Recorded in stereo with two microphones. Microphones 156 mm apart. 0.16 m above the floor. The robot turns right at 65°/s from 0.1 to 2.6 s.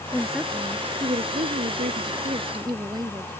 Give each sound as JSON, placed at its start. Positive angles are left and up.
{"t": 0.1, "sound": "a woman speaking", "azimuth_deg": 170}